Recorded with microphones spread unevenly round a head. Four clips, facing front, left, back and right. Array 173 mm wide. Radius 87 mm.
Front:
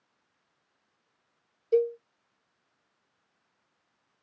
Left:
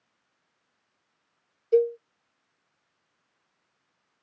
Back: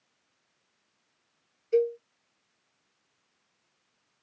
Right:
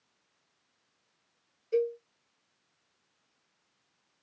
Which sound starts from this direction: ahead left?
A cowbell, at 1.7 s.